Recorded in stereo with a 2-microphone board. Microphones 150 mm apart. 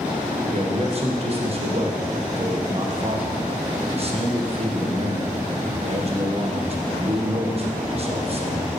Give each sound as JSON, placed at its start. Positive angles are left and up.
{"t": 0.5, "sound": "a man speaking", "side_deg": -45, "distance_m": 1.1}